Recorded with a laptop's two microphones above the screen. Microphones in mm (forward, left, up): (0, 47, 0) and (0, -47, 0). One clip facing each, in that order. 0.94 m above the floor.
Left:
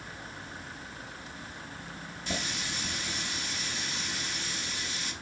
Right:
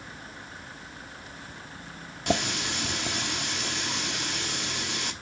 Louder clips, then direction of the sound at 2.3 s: Right 9 dB; 70° right (ahead or behind).